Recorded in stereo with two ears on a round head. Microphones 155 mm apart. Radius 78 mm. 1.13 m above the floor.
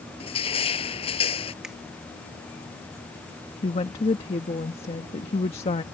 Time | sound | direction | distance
0.2 | crushing | 35° left (ahead or behind) | ?
1.6 | a finger snap | 5° right (ahead or behind) | ?
3.6 | a woman speaking | 35° left (ahead or behind) | ?